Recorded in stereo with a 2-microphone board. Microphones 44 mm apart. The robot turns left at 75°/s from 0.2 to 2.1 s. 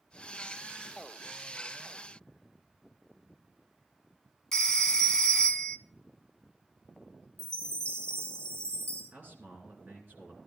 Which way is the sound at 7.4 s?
80° right.